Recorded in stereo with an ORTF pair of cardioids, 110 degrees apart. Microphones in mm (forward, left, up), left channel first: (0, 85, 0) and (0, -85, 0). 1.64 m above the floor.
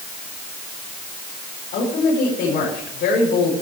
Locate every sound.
1.7 s a woman speaking: 60° left, 5 m